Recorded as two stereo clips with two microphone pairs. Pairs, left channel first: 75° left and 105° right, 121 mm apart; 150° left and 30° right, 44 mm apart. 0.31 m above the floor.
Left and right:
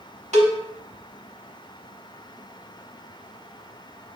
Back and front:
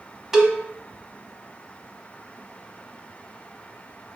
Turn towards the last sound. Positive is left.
turn(degrees=-110)